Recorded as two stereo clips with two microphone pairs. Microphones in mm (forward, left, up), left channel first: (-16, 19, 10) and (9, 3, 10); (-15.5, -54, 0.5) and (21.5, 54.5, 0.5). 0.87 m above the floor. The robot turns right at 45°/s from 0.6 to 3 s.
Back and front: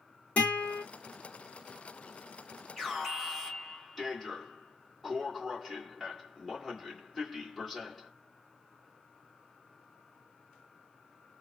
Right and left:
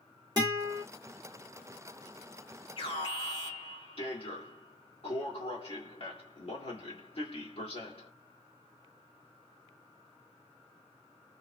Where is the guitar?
120° left, 2.0 m; by 0.8 s 130° left, 2.0 m.